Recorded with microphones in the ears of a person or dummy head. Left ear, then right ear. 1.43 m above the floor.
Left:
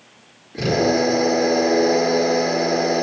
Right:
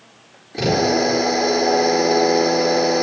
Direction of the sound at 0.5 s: 25° right (ahead or behind).